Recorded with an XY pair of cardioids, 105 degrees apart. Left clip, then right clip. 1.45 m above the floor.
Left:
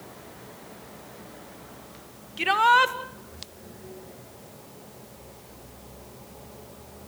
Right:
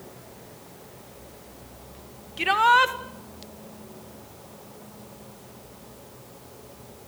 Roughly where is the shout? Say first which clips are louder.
Right 1 dB; ahead.